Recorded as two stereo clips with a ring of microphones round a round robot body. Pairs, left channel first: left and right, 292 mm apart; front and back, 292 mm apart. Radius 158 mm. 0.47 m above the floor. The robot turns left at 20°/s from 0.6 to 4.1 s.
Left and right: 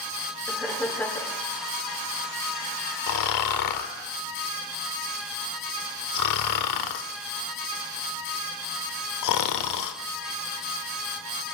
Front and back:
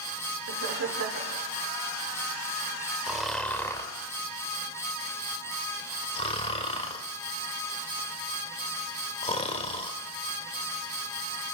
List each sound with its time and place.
0.5 s laughter: straight behind, 1.6 m; by 1.4 s 165° left, 1.6 m
3.1 s snoring: 95° left, 1.0 m; by 10.0 s 70° left, 1.0 m